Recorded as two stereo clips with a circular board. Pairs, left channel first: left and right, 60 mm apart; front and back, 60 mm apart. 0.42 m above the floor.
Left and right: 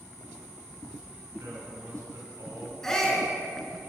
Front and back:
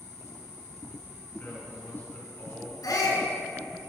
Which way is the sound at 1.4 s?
60° right.